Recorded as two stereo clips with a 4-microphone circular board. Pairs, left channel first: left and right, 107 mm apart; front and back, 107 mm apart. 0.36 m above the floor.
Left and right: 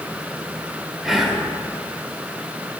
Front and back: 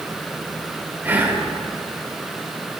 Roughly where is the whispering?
Behind.